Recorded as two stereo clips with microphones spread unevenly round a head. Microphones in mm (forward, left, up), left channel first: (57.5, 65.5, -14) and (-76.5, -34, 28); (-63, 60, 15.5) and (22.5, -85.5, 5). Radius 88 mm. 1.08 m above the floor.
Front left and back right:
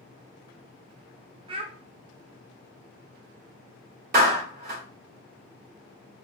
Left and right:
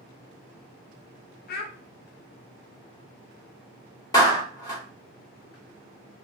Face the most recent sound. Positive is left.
turn(degrees=-170)